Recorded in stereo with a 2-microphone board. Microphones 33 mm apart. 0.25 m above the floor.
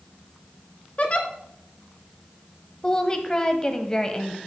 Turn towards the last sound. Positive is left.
turn(degrees=25)  # may be behind; listen again after turning